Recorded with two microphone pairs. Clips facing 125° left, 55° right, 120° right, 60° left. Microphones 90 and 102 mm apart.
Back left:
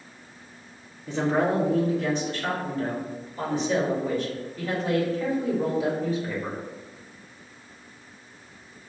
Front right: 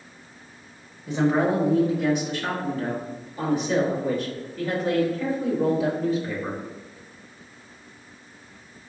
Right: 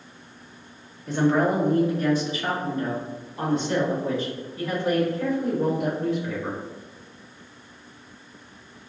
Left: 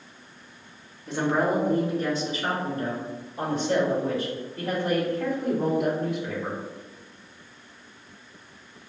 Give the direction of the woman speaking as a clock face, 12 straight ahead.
1 o'clock.